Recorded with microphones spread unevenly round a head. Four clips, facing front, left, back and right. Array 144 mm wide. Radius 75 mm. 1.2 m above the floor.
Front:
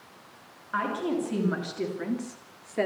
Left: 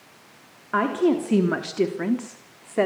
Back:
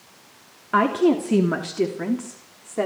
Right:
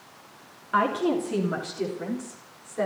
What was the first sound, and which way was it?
A woman speaking, 155° left.